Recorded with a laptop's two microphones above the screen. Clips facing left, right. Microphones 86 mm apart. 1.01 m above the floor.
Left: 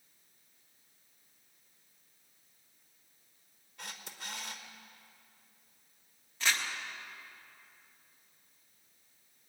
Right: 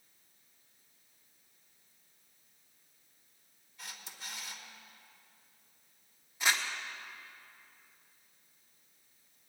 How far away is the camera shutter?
About 1.2 m.